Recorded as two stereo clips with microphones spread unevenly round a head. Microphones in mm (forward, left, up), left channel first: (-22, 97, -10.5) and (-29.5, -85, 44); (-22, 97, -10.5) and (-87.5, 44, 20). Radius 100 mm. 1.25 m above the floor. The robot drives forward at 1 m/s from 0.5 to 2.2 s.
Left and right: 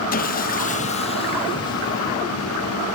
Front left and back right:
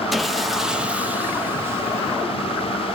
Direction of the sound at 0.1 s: 130° left.